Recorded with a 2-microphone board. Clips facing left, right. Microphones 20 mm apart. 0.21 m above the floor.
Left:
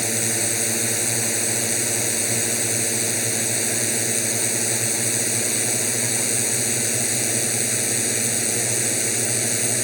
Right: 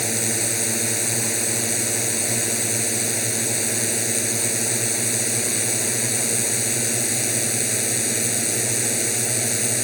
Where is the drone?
5° left (ahead or behind).